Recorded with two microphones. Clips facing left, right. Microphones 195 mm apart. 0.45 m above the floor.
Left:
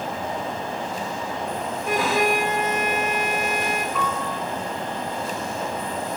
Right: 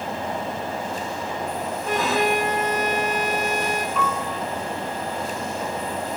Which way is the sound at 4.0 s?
85° left.